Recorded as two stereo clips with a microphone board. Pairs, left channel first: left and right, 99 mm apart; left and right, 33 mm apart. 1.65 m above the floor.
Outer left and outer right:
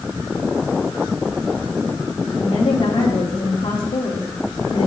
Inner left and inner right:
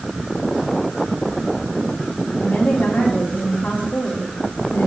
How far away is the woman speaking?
About 1.8 m.